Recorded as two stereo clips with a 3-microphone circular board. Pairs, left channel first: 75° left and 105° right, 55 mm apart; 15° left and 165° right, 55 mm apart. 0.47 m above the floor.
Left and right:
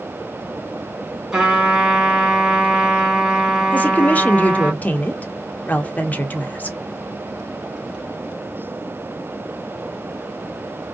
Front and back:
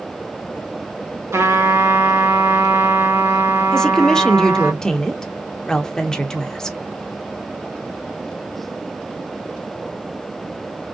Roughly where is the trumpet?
Behind.